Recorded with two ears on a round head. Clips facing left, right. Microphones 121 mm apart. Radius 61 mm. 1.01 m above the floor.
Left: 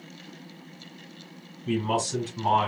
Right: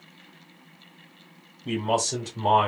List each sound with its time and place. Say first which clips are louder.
1.6 s a man speaking: right 1 dB; 55° right (ahead or behind), 2.5 m; by 2.7 s 50° right (ahead or behind), 2.0 m